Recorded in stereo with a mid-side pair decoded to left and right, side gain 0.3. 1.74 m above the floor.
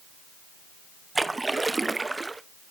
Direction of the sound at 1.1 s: 30° right.